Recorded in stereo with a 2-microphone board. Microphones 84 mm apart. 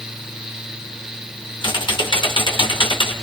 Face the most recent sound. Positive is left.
turn(degrees=65)  # may be behind; listen again after turning